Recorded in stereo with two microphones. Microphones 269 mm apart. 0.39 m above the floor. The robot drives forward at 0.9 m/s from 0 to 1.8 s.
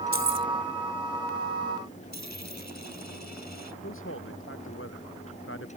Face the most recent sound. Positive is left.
turn(degrees=50)  # may be behind; listen again after turning